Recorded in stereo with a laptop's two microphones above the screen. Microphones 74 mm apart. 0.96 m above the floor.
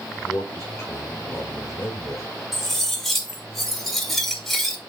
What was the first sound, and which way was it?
A man speaking, 40° left (ahead or behind).